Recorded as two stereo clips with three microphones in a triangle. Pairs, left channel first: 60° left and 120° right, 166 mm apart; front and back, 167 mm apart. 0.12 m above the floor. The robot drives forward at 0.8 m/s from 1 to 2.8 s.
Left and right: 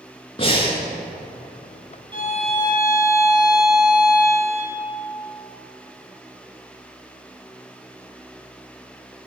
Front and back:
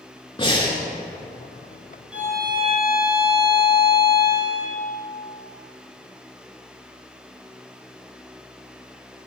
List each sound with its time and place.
0.4 s breathing: 35° left, 1.1 m
2.1 s a violin: 100° right, 0.7 m; by 4.8 s 150° right, 1.0 m